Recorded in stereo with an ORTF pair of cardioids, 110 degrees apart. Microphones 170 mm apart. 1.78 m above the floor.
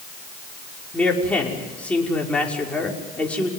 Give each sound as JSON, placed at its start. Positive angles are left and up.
{"t": 0.9, "sound": "a man speaking", "azimuth_deg": 5, "distance_m": 5.5}